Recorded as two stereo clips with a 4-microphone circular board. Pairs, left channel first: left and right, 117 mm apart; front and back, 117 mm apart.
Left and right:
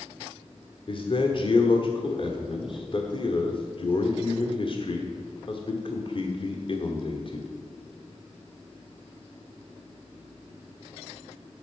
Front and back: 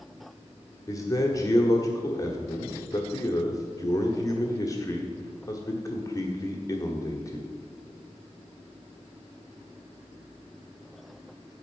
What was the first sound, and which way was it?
A man speaking, 55° left.